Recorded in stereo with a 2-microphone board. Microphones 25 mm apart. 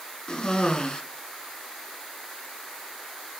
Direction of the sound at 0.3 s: 35° left (ahead or behind).